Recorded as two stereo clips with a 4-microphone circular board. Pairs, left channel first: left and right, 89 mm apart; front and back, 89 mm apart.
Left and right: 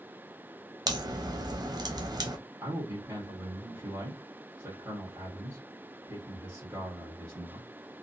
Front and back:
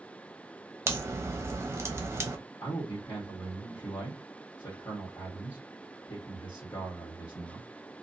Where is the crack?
120° right, 0.7 m.